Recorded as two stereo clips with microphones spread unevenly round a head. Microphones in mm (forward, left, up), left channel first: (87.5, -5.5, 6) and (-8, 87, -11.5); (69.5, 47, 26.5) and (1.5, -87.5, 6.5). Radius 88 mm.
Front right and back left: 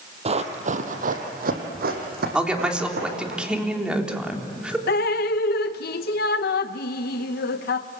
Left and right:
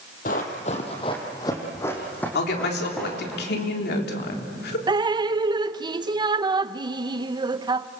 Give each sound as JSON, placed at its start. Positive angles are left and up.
{"t": 0.2, "sound": "running footsteps", "azimuth_deg": 95, "distance_m": 2.5}
{"t": 2.4, "sound": "a woman speaking", "azimuth_deg": 55, "distance_m": 3.5}
{"t": 4.9, "sound": "dripping", "azimuth_deg": -55, "distance_m": 0.8}